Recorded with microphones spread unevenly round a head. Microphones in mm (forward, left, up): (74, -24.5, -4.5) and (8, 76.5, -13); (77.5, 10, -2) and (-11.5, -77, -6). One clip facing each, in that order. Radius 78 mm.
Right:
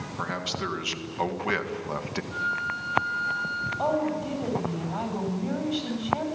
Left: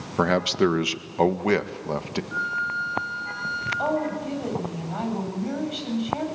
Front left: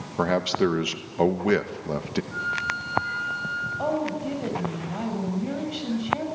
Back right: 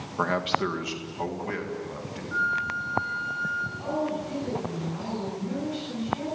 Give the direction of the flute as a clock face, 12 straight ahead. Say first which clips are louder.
Left 2 dB, back right 1 dB; 6 o'clock.